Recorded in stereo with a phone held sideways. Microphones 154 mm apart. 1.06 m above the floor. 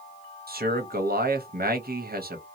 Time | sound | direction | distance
0.5 | a man speaking | 75° right (ahead or behind) | 0.9 m